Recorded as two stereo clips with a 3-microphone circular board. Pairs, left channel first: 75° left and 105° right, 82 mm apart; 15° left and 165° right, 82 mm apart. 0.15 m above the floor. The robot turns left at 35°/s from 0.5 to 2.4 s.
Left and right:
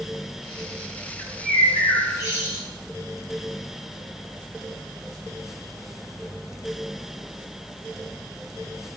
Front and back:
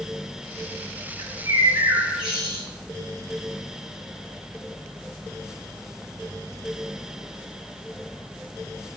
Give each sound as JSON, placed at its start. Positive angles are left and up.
{"t": 1.2, "sound": "a bird", "azimuth_deg": 150, "distance_m": 2.0}